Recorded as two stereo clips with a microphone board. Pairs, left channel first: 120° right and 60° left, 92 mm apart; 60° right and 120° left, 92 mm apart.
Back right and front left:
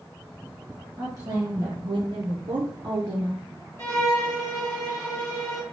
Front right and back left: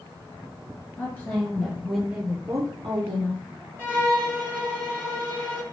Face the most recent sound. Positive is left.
turn(degrees=-175)